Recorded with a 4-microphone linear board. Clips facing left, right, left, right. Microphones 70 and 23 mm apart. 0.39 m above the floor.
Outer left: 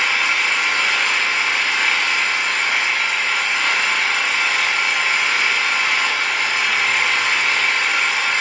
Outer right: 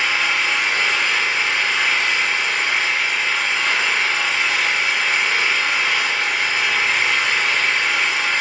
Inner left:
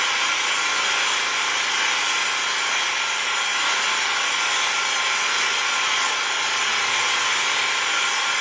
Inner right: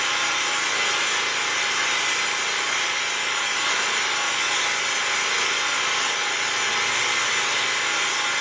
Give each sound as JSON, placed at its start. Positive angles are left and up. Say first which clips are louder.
{"t": 0.0, "sound": "an engine running", "louder": "outer left 1 dB, inner left 1 dB", "side_deg": 65, "distance_m": 2.0}